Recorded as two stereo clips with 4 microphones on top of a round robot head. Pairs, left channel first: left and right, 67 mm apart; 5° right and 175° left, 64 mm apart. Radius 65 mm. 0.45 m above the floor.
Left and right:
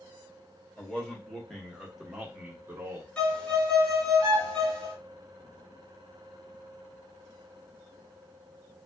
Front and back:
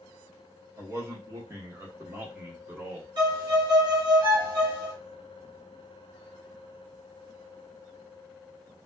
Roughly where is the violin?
Behind.